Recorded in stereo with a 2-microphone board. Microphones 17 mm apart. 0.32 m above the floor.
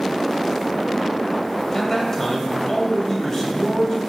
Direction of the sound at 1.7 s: 20° left (ahead or behind).